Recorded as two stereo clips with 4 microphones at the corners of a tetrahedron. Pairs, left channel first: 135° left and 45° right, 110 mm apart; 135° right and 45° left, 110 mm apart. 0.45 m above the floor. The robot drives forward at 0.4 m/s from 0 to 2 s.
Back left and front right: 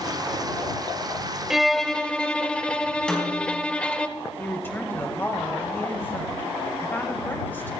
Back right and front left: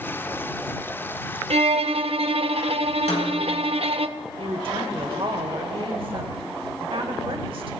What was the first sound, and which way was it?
A violin, 40° left.